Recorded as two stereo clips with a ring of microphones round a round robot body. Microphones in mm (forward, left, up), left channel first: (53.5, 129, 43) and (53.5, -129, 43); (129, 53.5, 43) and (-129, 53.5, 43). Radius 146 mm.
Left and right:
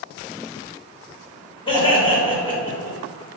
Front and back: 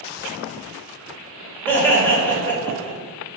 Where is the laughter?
65° left, 1.4 m.